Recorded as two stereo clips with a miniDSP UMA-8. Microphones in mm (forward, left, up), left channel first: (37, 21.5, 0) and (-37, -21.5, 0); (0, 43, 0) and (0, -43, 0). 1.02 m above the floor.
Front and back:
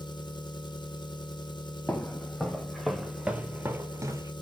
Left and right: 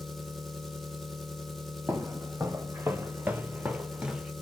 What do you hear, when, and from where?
0.0 s an engine running: straight ahead, 1.1 m
1.9 s footsteps: 35° right, 1.5 m; by 4.3 s 170° right, 1.2 m